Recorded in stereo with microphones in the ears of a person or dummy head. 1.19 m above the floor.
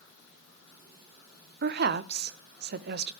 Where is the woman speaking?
45° right (ahead or behind), 0.9 m.